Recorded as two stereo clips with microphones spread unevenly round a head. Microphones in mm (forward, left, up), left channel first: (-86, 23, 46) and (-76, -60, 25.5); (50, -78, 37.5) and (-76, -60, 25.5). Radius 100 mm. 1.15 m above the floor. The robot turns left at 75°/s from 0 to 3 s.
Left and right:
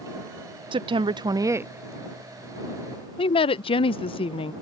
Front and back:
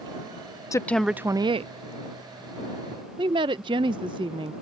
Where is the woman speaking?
75° right; by 4.5 s 110° left.